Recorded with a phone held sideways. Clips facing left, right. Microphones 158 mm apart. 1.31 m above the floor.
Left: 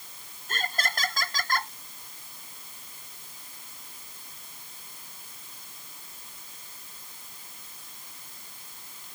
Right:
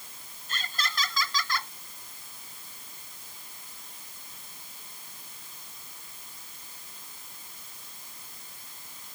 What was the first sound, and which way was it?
Laughter, 50° left (ahead or behind).